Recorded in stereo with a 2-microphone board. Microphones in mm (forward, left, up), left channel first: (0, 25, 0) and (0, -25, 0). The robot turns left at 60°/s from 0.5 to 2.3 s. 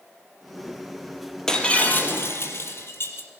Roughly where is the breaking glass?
Behind.